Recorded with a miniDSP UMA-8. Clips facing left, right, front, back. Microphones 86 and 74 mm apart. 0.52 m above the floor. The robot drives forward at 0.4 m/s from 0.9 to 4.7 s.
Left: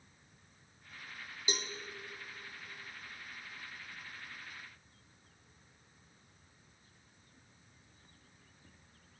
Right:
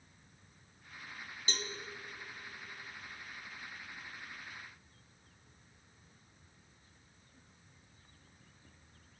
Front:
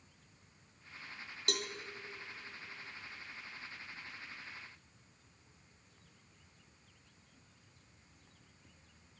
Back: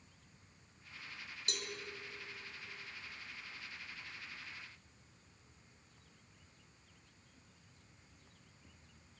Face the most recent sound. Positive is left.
turn(degrees=170)